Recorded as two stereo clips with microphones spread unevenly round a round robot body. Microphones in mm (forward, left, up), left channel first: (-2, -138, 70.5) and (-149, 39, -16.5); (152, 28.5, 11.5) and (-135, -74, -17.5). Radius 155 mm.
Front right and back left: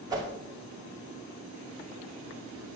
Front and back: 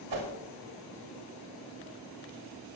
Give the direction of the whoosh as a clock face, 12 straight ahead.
5 o'clock.